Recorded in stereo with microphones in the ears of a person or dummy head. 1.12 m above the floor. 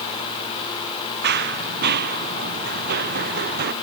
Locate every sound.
1.2 s running footsteps: 55° right (ahead or behind); by 3.7 s 50° right (ahead or behind)